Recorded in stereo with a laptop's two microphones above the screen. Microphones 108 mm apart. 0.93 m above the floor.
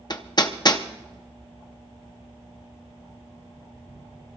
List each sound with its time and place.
0.1 s hammering: 40° left (ahead or behind), 0.6 m